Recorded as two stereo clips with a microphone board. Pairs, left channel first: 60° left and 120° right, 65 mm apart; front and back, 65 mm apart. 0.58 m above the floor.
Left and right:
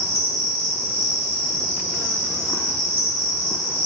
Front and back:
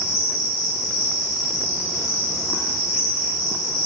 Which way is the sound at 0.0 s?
110° left.